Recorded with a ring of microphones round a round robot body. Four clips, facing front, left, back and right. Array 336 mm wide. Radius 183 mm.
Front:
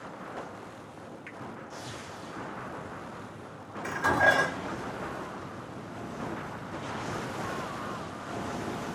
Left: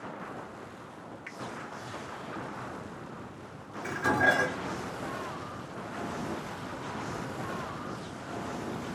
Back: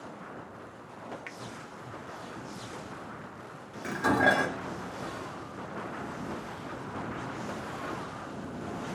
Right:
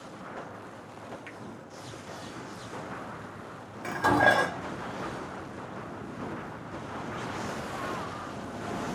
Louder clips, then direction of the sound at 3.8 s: Right 4 dB, even; 95° right.